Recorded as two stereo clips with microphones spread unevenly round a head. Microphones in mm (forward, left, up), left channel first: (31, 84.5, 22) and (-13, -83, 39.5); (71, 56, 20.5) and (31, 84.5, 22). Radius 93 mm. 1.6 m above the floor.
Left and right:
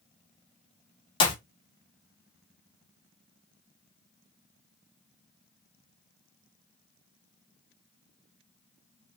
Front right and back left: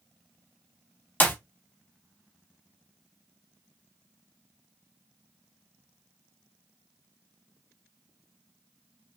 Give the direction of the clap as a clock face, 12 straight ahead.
12 o'clock.